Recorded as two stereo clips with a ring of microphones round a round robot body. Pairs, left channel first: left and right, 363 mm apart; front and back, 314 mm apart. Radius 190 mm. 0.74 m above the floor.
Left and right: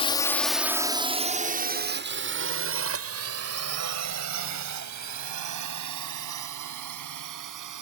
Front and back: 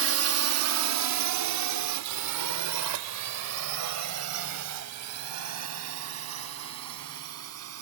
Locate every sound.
0.0 s a drone: 160° left; by 7.8 s 130° right